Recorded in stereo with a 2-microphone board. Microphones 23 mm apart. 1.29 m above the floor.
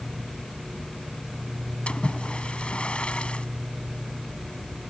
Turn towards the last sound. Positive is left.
turn(degrees=50)  # may be behind; listen again after turning